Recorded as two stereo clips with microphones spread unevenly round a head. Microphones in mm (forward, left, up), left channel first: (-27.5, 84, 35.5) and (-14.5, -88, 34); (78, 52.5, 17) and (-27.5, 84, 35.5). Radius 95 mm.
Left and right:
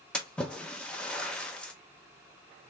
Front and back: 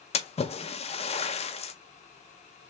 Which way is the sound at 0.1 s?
10° left.